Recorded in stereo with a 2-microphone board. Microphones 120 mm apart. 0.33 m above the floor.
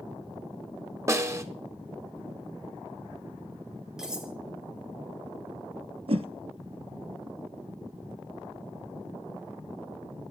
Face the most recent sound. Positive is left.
turn(degrees=-55)  # may be behind; listen again after turning